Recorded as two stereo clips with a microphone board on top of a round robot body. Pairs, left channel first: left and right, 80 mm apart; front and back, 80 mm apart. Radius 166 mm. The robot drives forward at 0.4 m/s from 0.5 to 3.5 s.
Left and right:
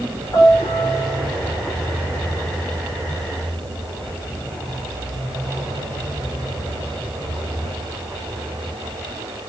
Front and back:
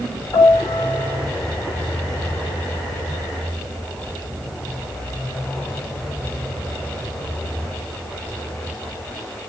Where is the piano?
50° left, 4 m; by 1.3 s 55° left, 4 m.